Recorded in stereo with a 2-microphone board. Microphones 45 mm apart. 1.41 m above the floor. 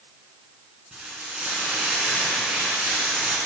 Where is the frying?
15° right (ahead or behind), 2 m.